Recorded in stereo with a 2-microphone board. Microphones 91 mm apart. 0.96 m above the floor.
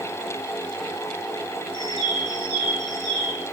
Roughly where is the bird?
Left.